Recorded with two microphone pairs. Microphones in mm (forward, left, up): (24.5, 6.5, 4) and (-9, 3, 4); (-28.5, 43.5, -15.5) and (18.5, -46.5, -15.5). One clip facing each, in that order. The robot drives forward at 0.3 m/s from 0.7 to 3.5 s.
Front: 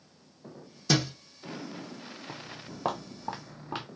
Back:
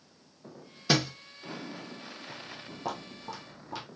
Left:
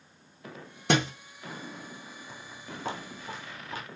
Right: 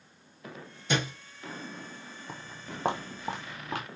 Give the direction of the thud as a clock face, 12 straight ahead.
8 o'clock.